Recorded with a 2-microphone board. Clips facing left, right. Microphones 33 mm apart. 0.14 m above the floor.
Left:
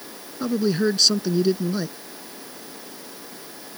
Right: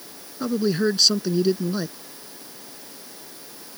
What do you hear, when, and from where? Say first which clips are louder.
0.4 s a man speaking: even; 5° right (ahead or behind)